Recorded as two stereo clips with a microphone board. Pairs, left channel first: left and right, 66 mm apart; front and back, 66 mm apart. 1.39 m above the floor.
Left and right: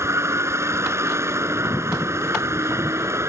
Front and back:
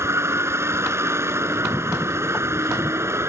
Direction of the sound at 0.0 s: 135° right.